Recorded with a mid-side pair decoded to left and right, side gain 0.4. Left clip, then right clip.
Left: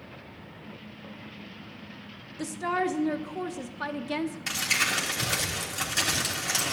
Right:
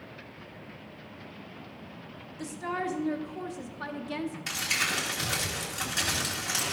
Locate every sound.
2.4 s a woman speaking: 40° left, 0.9 m
4.5 s crumpling: 20° left, 3.5 m